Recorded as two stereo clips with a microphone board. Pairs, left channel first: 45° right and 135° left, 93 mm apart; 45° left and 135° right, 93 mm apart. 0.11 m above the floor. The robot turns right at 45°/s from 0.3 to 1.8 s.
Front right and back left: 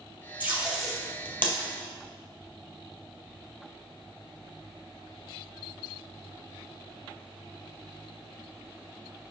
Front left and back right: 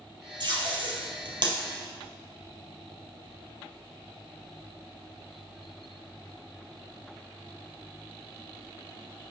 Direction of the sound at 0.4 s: 155° right.